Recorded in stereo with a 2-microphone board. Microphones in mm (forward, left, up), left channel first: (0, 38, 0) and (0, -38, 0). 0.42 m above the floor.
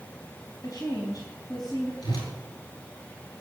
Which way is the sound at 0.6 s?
60° left (ahead or behind).